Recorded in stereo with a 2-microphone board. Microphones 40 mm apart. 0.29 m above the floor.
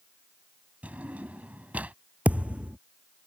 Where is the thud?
35° right (ahead or behind).